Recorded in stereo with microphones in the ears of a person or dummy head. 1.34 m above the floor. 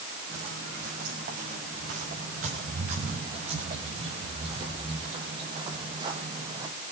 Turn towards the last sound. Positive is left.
turn(degrees=-20)  # may be behind; listen again after turning